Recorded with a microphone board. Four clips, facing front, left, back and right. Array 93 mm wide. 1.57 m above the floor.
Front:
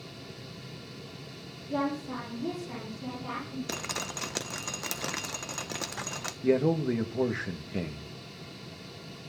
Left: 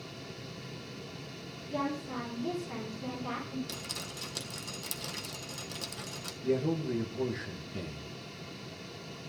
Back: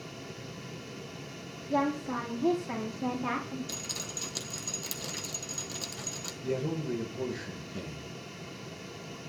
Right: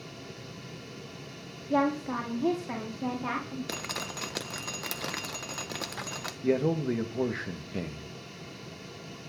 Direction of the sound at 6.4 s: 40° right.